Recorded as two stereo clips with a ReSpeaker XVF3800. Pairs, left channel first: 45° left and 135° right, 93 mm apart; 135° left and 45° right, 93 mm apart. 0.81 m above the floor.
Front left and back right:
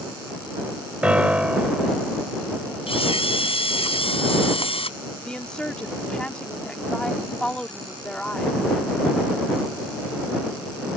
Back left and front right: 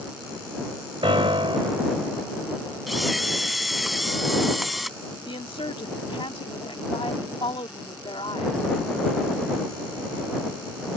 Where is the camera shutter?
45° left.